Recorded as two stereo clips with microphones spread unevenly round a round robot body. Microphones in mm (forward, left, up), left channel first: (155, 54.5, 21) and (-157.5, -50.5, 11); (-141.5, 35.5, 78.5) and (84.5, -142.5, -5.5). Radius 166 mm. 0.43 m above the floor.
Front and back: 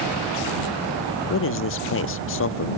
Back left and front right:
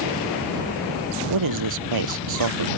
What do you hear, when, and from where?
1.3 s a man speaking: 35° right